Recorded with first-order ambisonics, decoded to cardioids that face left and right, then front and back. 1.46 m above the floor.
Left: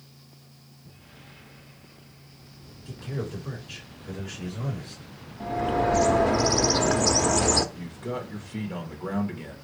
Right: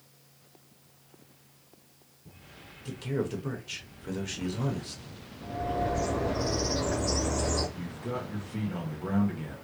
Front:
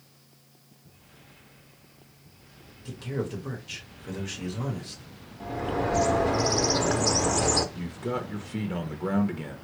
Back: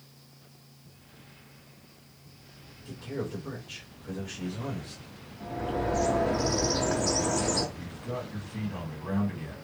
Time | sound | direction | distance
2.9 | a man speaking | 55° right | 1.0 m
5.4 | a bird | 65° left | 0.5 m
7.8 | a man speaking | 10° left | 0.7 m